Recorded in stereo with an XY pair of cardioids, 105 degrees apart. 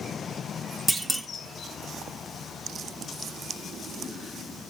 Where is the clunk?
10° right, 0.8 m.